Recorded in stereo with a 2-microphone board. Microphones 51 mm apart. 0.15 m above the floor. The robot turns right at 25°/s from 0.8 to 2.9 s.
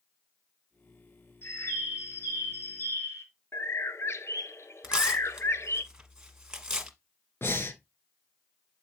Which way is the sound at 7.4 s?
55° left (ahead or behind).